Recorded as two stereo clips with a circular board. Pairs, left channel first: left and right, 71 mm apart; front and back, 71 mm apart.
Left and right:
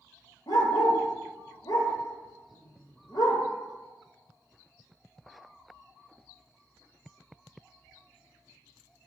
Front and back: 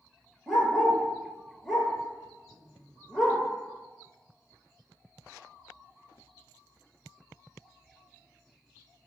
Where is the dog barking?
90° left, 0.6 m.